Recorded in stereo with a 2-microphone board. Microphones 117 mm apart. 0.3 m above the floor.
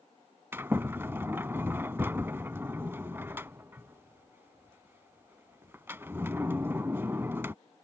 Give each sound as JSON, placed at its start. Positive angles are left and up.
{"t": 0.5, "sound": "a sliding door", "side_deg": -20}